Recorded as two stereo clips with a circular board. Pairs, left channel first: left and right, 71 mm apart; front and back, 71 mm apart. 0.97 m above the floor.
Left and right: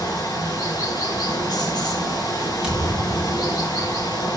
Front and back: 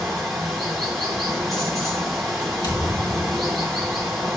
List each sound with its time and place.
0.0 s running water: 90° left, 4.5 m
2.6 s a thud: 15° right, 3.5 m